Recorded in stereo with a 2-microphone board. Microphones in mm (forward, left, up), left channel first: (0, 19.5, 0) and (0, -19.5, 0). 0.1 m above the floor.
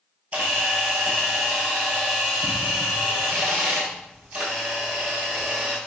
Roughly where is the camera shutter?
Right.